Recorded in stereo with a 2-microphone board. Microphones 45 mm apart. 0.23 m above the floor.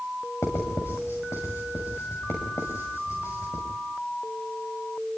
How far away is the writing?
About 6 m.